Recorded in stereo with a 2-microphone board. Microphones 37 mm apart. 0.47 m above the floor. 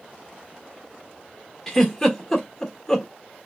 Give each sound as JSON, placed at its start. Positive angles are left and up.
{"t": 1.7, "sound": "a giggle", "side_deg": 15, "distance_m": 1.3}